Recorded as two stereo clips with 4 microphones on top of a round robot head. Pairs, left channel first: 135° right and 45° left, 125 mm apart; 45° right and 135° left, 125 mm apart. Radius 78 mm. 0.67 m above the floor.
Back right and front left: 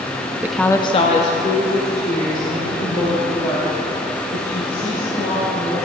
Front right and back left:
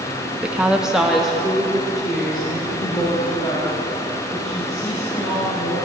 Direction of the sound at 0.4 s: 70° left.